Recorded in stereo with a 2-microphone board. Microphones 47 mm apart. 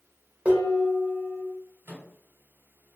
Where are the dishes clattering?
25° right (ahead or behind), 0.8 m.